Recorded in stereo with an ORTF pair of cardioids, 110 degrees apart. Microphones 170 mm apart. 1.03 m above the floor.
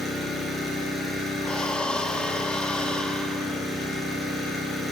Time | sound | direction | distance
0.0 | an engine running | straight ahead | 7.5 m
1.4 | breathing | 5° left | 1.4 m